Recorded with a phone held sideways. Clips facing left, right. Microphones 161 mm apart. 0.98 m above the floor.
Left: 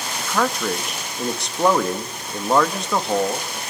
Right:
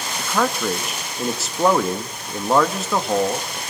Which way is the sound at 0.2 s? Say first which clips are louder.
Right 1 dB; 5° right (ahead or behind).